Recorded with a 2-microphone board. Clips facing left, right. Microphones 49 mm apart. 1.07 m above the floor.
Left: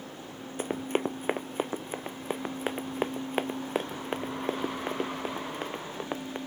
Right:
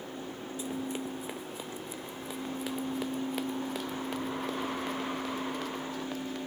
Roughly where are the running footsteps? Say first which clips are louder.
Left 7 dB; left.